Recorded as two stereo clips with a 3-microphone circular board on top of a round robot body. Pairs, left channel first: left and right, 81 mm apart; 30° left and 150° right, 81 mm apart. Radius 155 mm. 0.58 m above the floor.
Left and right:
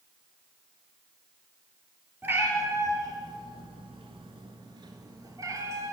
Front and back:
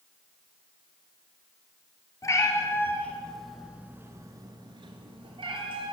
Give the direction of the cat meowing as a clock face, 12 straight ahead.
1 o'clock.